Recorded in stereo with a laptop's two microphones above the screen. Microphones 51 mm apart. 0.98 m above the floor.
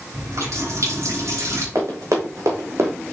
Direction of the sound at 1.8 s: 75° right (ahead or behind).